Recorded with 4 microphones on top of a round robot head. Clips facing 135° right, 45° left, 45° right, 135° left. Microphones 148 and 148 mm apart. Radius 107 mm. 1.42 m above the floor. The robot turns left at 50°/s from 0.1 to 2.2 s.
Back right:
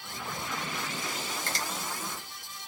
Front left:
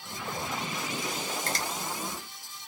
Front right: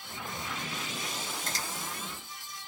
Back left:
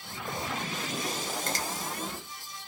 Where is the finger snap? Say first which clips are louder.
Front left 3 dB, back left 6 dB; 95° left, 1.2 m; by 1.6 s 85° left, 1.2 m.